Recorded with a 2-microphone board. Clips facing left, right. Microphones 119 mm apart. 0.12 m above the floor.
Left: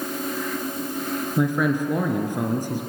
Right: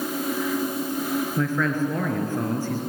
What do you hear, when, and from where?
1.4 s a man speaking: 15° left (ahead or behind), 2.0 m